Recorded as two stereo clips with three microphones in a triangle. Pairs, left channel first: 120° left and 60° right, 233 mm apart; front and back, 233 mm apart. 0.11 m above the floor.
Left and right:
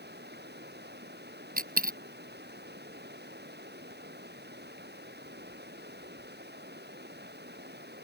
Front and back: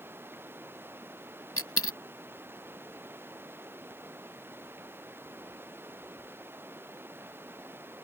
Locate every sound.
0.0 s running water: 100° right
1.6 s a dropped coin: 10° right